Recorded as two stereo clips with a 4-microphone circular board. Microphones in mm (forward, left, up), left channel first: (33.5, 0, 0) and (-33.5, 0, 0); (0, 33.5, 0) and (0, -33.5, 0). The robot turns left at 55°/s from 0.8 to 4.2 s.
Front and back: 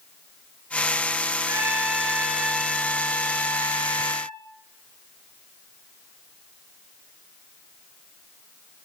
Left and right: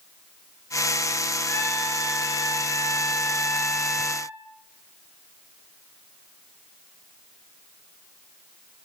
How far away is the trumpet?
About 3.5 m.